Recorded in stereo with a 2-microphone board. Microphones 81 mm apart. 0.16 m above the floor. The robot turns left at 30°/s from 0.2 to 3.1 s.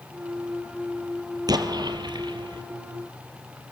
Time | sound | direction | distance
1.5 | an explosion | 65° right | 1.7 m